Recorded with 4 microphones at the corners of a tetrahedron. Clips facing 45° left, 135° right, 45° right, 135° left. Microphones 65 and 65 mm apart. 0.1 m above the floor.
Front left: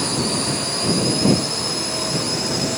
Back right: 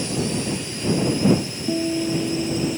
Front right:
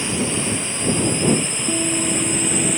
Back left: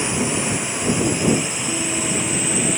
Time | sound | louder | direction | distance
0.0 | a drone | front left 2 dB, back left 1 dB | 65° left | ?
1.7 | a guitar | back right 3 dB, front right 4 dB | 110° right | ?